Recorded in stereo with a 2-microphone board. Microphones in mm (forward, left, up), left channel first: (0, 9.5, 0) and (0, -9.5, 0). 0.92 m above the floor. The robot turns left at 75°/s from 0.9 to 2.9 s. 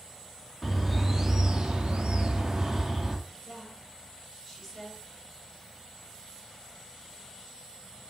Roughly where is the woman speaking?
Centre.